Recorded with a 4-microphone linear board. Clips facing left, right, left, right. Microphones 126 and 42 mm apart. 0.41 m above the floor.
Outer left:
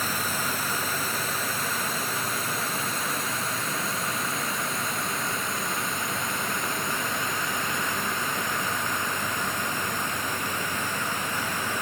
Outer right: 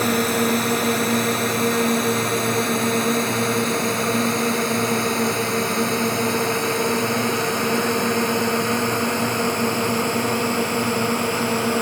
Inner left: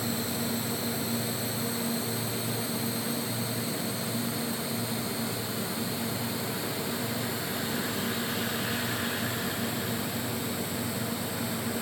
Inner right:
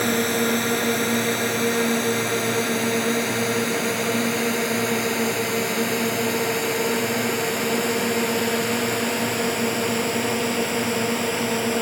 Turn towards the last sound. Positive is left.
turn(degrees=-75)  # may be behind; listen again after turning